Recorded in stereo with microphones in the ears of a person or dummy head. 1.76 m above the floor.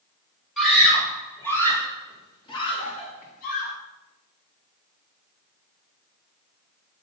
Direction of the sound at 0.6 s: 5° left (ahead or behind).